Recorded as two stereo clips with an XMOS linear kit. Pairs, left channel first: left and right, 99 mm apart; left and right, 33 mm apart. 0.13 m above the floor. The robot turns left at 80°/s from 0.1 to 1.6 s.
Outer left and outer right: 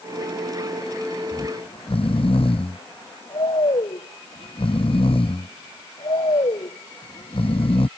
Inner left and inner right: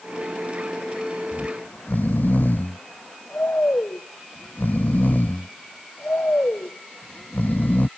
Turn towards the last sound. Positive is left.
turn(degrees=65)  # may be behind; listen again after turning